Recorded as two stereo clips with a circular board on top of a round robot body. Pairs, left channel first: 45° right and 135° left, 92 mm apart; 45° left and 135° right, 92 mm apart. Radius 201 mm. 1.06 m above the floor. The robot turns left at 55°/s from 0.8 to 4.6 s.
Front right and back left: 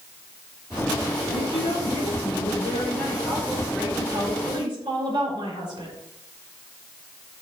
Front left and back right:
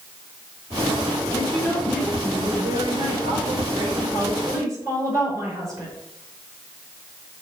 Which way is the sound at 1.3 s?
10° right.